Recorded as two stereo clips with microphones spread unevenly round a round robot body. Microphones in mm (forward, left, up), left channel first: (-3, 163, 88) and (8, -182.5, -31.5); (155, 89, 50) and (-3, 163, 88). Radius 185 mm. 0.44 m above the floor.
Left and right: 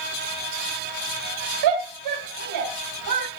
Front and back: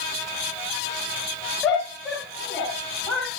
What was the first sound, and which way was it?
A shout, 110° right.